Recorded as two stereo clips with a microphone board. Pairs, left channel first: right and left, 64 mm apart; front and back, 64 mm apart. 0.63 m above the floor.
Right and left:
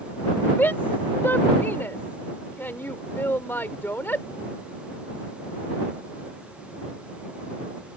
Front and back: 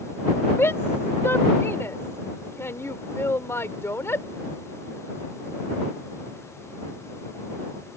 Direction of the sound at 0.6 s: 40° right.